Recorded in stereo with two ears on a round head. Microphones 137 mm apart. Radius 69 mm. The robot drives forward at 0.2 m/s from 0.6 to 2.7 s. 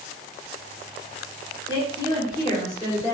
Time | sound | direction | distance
1.7 | a woman speaking | 30° left (ahead or behind) | 0.9 m